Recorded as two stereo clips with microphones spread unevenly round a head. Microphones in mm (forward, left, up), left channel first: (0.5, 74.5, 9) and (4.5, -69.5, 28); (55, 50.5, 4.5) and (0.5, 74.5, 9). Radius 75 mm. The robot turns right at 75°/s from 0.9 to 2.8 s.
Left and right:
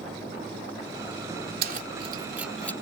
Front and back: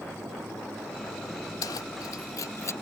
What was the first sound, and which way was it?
Keys jangling, 70° right.